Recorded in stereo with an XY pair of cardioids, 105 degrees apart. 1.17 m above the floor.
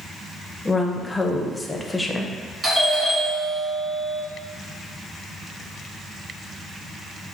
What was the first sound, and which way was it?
A woman speaking, 10° left.